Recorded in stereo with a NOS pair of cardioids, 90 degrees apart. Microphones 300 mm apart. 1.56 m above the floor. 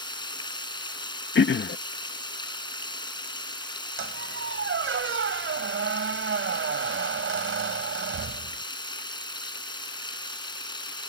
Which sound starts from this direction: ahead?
Running water, at 0.0 s.